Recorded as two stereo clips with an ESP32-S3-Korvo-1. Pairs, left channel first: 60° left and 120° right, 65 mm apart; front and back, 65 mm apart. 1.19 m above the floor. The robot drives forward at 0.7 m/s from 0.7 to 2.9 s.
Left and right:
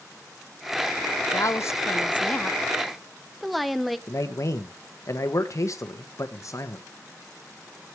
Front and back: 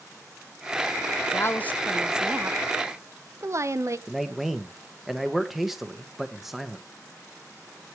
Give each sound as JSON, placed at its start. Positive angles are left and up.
{"t": 1.3, "sound": "a woman speaking", "azimuth_deg": 35, "distance_m": 0.7}
{"t": 4.1, "sound": "a man speaking", "azimuth_deg": 95, "distance_m": 1.5}